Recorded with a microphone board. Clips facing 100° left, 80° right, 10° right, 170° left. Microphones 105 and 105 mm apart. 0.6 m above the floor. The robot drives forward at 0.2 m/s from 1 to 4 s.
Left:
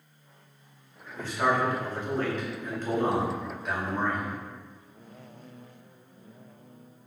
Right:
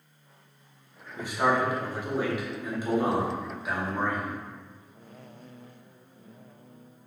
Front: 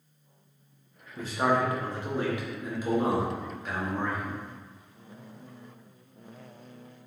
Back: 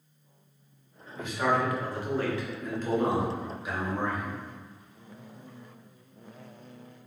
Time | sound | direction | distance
1.2 | a man speaking | 15° right | 0.7 m